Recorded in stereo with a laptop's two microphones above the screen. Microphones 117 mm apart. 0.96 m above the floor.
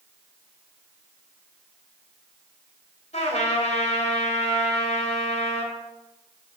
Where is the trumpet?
75° left (ahead or behind), 2.5 m.